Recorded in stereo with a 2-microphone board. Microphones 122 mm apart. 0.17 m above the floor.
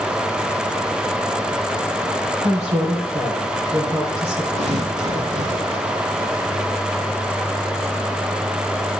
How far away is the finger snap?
No finger snap in this recording.